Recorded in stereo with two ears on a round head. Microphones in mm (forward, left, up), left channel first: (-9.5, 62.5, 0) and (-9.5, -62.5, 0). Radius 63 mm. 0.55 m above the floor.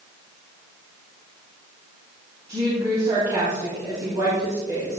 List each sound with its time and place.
2.5 s a woman speaking: 25° right (ahead or behind), 3.5 m